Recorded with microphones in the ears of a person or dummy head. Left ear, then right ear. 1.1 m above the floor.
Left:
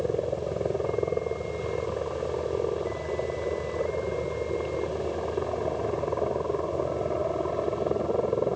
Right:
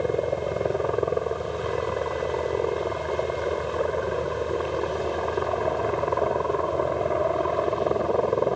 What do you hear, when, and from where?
0.0 s a helicopter: 50° right (ahead or behind)